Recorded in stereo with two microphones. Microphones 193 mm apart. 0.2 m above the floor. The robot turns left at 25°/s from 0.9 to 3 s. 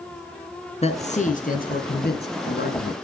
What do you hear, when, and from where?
0.8 s a man speaking: 140° left, 2 m; by 3.0 s 90° left, 2 m